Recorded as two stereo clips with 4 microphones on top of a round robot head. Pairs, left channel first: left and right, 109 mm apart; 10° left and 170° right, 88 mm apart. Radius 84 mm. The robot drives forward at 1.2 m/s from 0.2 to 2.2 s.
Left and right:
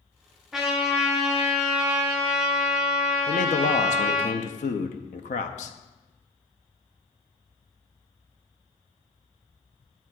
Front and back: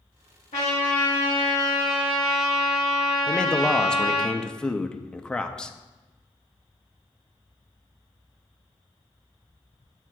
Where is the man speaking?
90° left, 0.5 m.